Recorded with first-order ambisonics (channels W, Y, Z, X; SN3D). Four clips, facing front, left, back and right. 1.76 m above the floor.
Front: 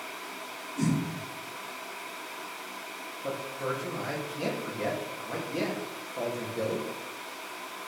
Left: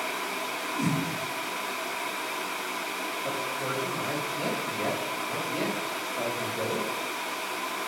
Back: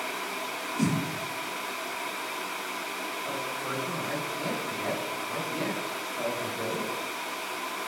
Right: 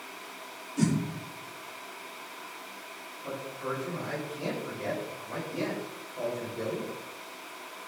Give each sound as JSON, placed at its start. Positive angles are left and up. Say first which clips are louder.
{"t": 0.8, "sound": "a whoosh", "louder": "right 2 dB, back 1 dB", "azimuth_deg": -90, "distance_m": 2.0}
{"t": 3.2, "sound": "a man speaking", "louder": "left 1 dB, front 4 dB", "azimuth_deg": 25, "distance_m": 3.5}